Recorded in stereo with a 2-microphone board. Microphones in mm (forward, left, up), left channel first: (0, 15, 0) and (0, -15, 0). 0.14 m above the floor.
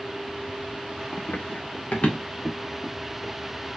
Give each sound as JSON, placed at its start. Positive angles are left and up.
{"t": 1.1, "sound": "running footsteps", "side_deg": 75, "distance_m": 2.0}